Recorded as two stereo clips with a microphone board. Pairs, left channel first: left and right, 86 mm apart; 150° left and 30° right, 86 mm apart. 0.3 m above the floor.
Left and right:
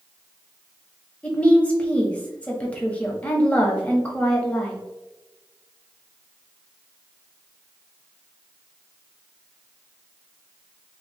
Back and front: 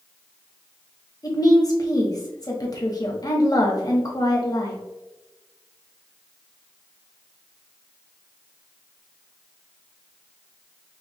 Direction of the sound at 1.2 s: 160° left.